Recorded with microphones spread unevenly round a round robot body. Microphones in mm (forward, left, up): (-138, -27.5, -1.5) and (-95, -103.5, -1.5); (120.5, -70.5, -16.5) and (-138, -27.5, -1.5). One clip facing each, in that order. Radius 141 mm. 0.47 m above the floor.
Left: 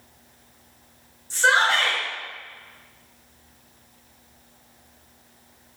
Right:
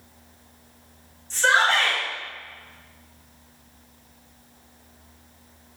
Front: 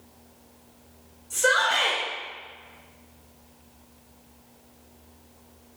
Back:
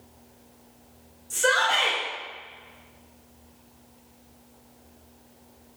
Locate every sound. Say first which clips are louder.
1.3 s a shout: even, even; 165° left, 1.1 m